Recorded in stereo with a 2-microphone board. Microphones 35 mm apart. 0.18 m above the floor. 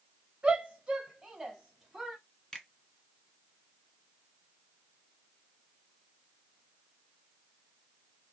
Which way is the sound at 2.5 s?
20° left (ahead or behind).